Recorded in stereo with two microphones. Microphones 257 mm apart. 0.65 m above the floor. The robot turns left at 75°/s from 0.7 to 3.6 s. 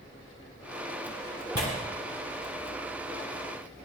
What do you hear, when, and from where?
1.6 s tearing paper: 80° left, 5.5 m; by 1.7 s 75° left (ahead or behind), 5.5 m